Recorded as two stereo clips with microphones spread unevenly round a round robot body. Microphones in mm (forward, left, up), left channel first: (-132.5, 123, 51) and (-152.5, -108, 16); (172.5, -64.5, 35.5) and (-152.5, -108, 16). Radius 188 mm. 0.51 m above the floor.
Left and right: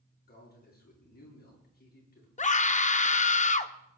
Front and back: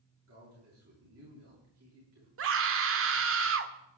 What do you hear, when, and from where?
0.3 s a man speaking: 135° left, 8.5 m
2.4 s a scream: 145° left, 1.1 m